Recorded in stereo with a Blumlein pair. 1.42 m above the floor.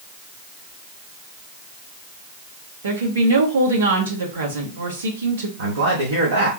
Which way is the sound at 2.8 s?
65° right.